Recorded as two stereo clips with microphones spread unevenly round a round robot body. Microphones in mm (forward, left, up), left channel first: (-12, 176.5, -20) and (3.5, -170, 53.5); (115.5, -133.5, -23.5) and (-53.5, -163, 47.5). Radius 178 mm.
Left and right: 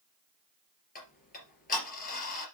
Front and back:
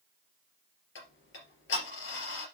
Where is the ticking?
25° left, 2.5 m.